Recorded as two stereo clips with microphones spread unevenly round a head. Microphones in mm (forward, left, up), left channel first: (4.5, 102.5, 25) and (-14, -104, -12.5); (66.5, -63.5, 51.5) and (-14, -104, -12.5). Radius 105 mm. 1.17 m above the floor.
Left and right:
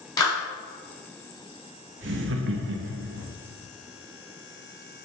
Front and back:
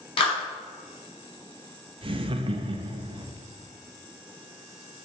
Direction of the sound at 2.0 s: 130° right.